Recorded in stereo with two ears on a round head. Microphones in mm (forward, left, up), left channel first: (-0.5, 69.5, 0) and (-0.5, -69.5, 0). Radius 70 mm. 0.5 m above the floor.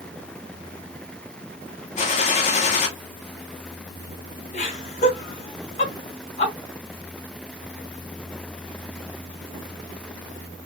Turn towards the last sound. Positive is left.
turn(degrees=55)  # may be behind; listen again after turning